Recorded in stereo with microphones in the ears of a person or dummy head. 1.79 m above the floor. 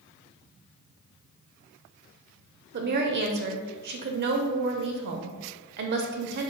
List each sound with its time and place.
2.7 s a woman speaking: 50° right (ahead or behind), 0.7 m